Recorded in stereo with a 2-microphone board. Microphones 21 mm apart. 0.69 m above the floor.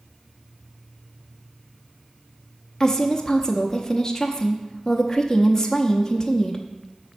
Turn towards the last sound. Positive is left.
turn(degrees=15)  # may be behind; listen again after turning